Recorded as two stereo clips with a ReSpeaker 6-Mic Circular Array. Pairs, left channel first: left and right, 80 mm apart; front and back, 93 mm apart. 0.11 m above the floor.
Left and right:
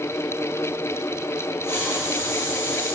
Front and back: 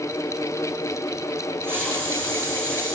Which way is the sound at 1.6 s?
130° left.